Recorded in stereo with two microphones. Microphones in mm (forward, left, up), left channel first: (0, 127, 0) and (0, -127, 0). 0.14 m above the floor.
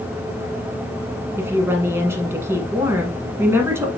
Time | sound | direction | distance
1.4 | a woman speaking | 10° right (ahead or behind) | 1.3 m